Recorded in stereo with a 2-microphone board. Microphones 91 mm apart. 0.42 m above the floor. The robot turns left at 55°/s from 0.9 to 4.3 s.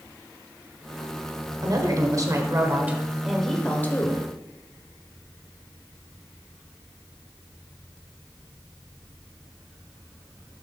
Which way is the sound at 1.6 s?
85° right.